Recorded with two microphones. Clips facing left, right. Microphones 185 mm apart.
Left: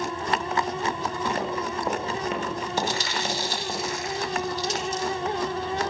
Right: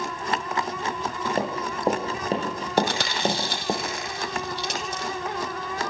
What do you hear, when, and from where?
1.4 s running footsteps: 30° right (ahead or behind), 9.5 m; by 3.8 s 45° right (ahead or behind), 7 m
2.8 s chewing: 65° right (ahead or behind), 5 m